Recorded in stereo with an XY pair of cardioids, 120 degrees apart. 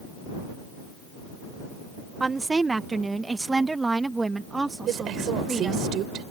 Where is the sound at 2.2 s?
20° right; by 5.9 s 15° right.